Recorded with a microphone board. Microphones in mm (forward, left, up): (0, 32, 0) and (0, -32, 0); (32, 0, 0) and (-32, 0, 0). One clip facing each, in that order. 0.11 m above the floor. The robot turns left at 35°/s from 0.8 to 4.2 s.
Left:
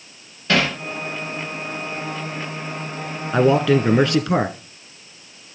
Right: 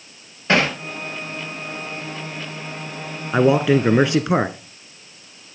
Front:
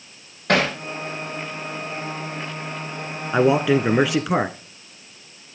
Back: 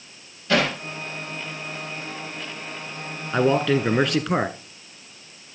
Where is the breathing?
I don't hear breathing.